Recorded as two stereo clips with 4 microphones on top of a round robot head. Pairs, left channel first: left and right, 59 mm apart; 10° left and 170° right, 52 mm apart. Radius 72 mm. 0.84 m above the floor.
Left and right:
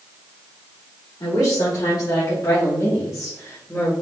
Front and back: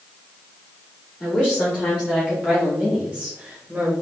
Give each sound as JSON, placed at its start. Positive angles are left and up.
{"t": 1.2, "sound": "a woman speaking", "azimuth_deg": 80, "distance_m": 2.5}